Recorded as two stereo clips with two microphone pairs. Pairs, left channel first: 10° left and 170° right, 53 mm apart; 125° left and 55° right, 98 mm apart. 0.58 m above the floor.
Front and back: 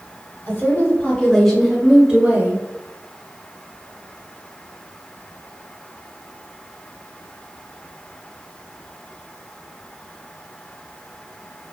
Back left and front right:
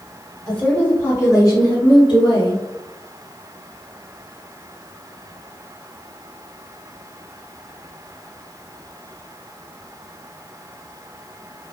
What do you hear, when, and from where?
0.5 s a woman speaking: 50° left, 1.1 m; by 2.6 s 135° left, 1.2 m